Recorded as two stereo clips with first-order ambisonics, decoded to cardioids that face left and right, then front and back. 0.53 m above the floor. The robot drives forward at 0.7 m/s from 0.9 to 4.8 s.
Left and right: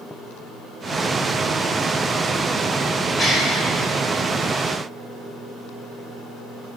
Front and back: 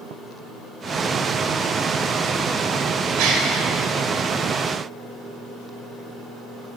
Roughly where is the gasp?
Behind.